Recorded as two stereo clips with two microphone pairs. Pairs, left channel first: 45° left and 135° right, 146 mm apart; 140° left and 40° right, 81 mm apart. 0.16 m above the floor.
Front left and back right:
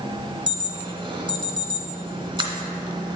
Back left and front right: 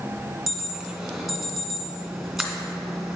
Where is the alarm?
120° right, 1.0 m.